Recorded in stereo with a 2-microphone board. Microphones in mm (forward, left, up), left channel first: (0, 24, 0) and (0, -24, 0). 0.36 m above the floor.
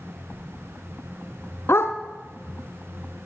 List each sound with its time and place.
1.7 s a dog barking: 60° left (ahead or behind), 1.7 m